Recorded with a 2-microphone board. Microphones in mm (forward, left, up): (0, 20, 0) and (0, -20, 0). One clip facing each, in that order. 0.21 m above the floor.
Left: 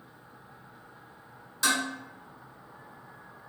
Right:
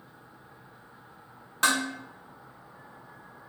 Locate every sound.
1.6 s dishes clattering: 50° right (ahead or behind), 1.2 m